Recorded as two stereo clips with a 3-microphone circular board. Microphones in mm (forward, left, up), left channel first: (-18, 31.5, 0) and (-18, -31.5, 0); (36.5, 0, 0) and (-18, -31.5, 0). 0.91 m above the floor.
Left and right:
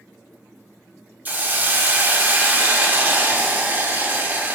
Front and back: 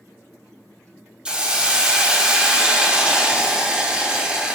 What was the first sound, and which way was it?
A hiss, 85° right.